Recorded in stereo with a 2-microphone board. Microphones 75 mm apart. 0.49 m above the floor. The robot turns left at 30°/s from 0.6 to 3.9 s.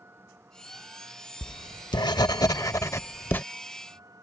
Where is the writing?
85° left; by 3.4 s 25° left.